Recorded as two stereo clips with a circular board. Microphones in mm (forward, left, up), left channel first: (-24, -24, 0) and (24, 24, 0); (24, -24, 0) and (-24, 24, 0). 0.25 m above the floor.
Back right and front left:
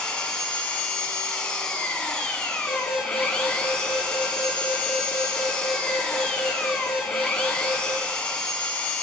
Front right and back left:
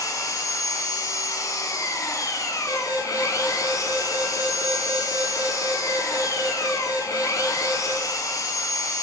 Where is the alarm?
25° right, 4.5 m.